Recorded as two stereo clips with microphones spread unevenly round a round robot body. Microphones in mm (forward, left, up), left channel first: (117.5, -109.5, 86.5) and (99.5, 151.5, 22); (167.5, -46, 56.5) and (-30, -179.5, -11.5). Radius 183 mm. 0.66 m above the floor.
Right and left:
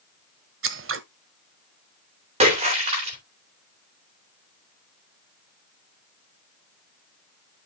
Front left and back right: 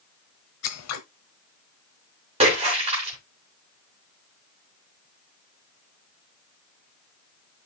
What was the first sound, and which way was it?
Scissors, 50° left.